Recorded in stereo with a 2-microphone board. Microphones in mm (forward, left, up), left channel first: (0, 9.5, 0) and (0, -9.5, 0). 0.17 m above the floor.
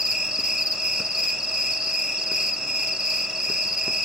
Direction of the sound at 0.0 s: 55° right (ahead or behind).